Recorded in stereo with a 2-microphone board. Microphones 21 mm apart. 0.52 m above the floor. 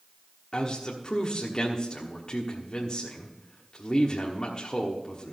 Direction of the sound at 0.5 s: 35° left (ahead or behind).